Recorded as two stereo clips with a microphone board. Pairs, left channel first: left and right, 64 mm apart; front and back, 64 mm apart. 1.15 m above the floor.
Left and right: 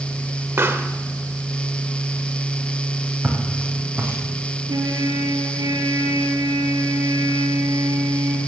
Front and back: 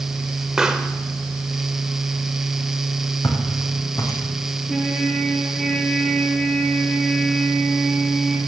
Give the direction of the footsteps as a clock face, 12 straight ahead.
1 o'clock.